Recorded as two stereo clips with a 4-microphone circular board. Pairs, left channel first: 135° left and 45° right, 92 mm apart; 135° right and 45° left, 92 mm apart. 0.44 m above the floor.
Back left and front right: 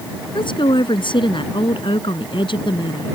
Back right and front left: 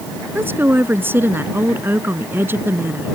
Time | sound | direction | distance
0.3 | a woman speaking | 110° left | ?